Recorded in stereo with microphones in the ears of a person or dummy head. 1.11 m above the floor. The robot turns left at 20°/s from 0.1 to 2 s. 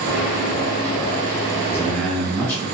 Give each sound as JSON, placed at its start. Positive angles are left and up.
{"t": 1.7, "sound": "a man speaking", "side_deg": 10, "distance_m": 1.5}